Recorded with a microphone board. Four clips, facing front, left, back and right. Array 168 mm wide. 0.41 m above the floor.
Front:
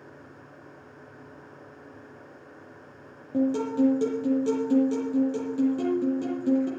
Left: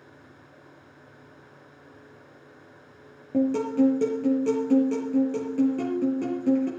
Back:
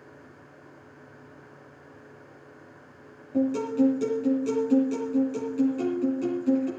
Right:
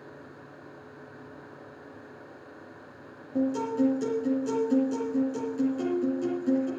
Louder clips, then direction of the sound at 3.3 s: Left 4 dB, even; 65° left.